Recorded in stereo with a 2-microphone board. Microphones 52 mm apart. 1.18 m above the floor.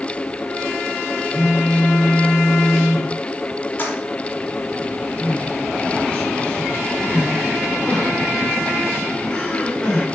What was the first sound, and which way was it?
A phone buzzing, 15° left (ahead or behind).